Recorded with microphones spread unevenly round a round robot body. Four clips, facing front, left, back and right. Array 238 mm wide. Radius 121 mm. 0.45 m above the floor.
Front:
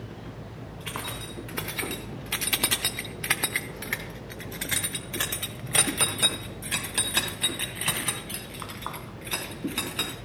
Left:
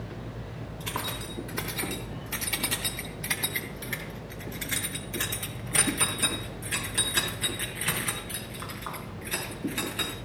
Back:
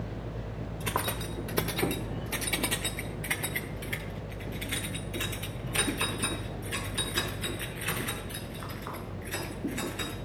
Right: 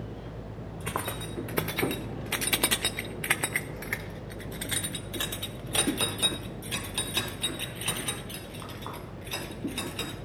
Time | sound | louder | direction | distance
0.8 | keys jangling | right 2 dB, back 5 dB | 145° right | 1.4 m